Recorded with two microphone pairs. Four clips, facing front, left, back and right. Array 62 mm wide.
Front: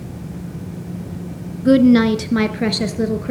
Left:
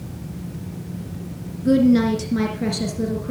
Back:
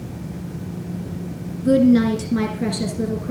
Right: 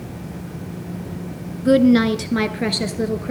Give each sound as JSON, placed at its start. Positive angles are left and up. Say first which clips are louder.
{"t": 1.6, "sound": "a woman speaking", "louder": "right 2 dB, front 3 dB", "azimuth_deg": -40, "distance_m": 1.8}